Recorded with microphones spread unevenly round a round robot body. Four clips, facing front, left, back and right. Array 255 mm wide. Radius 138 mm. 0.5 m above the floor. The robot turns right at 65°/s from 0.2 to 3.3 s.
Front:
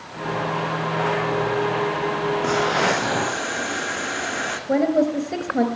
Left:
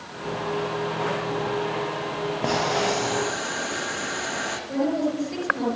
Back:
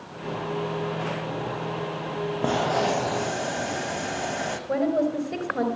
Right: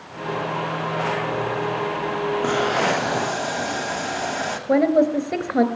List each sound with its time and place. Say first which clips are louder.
2.4 s boiling: right 1 dB, front 1 dB; 155° left, 1.4 m; by 4.6 s 145° right, 1.4 m
4.7 s a woman speaking: right 8 dB, front 5 dB; 70° right, 3 m